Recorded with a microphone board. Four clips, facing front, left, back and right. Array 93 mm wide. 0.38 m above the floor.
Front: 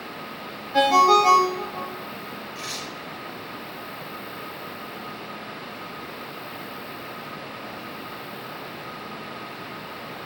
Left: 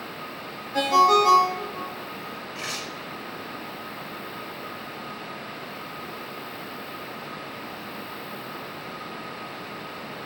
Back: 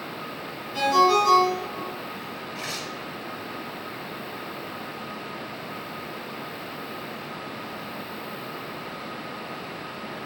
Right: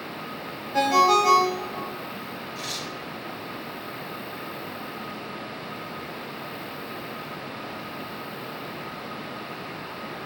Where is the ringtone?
15° right, 1.6 m.